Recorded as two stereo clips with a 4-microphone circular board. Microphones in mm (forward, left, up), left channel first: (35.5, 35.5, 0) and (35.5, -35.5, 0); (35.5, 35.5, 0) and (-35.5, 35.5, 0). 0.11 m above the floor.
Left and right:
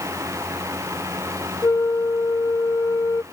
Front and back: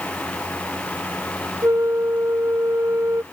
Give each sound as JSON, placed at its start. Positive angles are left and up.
{"t": 1.6, "sound": "a flute", "azimuth_deg": 130}